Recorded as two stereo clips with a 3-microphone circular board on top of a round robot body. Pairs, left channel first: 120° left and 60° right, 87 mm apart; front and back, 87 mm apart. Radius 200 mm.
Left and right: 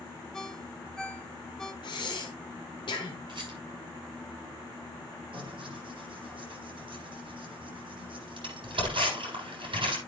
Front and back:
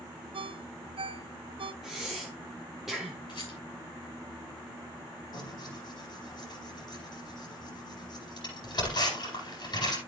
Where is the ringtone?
160° right, 0.7 m.